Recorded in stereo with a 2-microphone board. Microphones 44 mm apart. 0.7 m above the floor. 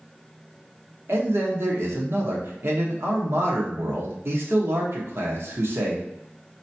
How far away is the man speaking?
About 1.1 m.